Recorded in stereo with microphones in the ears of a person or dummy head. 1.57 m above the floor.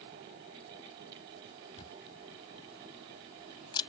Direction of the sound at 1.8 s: 25° left (ahead or behind).